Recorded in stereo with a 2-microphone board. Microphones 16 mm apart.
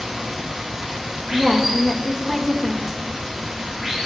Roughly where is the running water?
Right.